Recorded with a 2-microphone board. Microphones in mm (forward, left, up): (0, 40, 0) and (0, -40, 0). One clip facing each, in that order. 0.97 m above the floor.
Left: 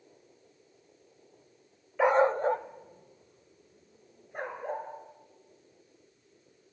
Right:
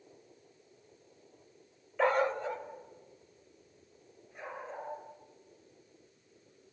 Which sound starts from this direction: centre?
A dog barking, at 2.0 s.